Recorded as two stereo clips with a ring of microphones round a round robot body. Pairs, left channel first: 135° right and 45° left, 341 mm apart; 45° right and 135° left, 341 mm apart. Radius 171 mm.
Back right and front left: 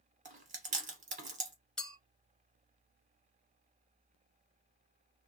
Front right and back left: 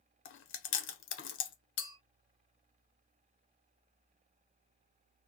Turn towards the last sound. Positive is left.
turn(degrees=-45)